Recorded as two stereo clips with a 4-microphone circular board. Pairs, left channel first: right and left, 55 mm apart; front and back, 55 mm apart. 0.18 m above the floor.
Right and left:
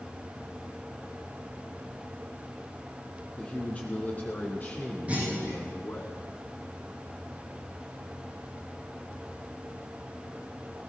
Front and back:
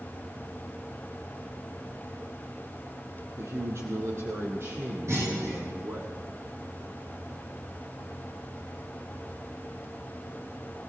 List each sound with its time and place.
3.4 s a man speaking: 160° right, 4.5 m; by 6.1 s 140° right, 7 m
5.1 s a clunk: 155° left, 9 m